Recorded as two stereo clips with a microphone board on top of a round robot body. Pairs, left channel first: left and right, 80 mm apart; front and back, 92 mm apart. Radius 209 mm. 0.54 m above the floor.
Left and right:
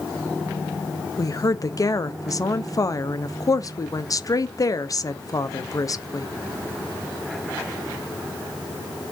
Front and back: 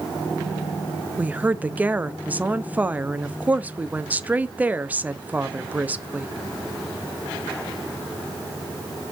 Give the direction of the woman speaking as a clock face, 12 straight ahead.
8 o'clock.